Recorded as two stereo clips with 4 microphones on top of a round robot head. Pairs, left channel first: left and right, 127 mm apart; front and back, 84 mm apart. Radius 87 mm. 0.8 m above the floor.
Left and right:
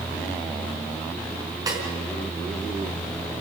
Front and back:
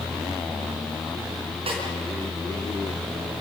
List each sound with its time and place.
1.7 s a snare drum: 150° right, 5 m